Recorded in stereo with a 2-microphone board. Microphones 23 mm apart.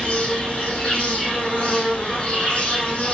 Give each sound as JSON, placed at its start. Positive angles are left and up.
{"t": 0.0, "sound": "an insect", "side_deg": 75, "distance_m": 7.0}